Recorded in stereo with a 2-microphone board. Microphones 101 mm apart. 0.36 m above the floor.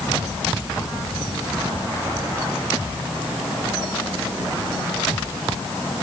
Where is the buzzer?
No buzzer in this recording.